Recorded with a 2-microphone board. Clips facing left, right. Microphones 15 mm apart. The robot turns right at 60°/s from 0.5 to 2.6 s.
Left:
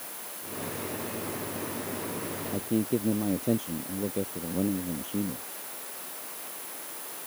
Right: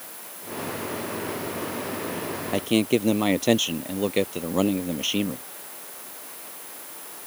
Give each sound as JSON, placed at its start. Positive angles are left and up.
{"t": 2.5, "sound": "a man speaking", "side_deg": -70}